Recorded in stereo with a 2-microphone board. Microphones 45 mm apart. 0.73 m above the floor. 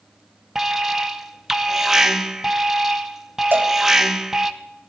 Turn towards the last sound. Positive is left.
turn(degrees=-55)  # may be behind; listen again after turning